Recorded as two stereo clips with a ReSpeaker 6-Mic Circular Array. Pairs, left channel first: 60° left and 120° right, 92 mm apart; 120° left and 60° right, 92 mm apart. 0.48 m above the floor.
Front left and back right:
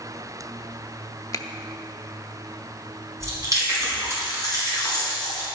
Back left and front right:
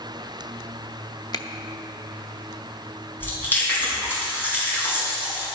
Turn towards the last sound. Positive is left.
turn(degrees=-175)